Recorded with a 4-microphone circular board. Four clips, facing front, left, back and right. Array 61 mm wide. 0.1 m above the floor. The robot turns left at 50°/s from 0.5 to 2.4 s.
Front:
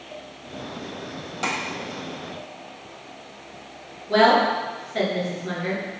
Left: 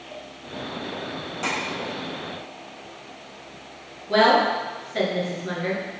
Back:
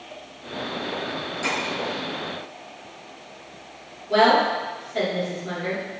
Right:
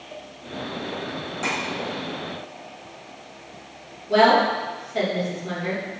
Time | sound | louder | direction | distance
1.4 | tapping | right 1 dB, even | 20° left | 1.6 m
4.1 | a woman speaking | right 1 dB, front 1 dB | 60° left | 1.7 m